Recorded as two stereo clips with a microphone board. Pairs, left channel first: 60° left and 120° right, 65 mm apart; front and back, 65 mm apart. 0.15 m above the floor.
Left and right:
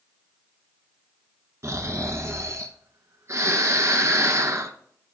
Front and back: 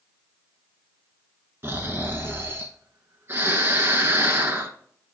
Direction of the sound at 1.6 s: 145° right.